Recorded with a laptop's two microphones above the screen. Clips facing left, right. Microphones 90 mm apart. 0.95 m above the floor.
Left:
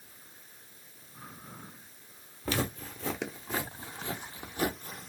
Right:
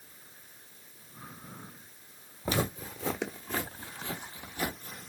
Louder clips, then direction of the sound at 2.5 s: Right 1 dB; 20° right (ahead or behind).